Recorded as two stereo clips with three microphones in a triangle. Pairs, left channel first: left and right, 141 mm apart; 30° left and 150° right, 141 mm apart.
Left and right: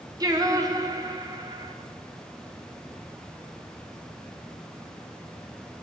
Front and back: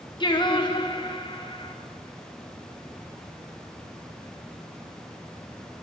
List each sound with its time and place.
0.2 s singing: 25° right, 1.1 m